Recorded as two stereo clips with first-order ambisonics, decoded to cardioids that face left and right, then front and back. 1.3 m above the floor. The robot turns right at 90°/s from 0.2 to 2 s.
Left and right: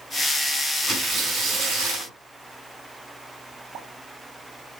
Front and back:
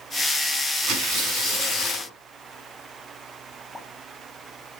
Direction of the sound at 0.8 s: 175° left.